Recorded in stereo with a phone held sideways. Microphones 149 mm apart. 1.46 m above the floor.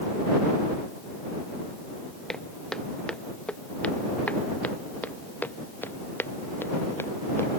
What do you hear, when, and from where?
2.3 s footsteps: 5° left (ahead or behind); by 7.5 s 20° left (ahead or behind)